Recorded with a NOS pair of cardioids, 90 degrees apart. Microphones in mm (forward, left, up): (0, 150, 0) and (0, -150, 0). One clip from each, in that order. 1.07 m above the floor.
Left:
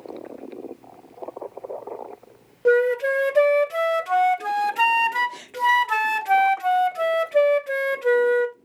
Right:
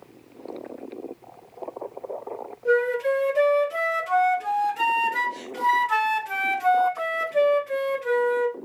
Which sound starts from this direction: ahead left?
A flute, at 2.6 s.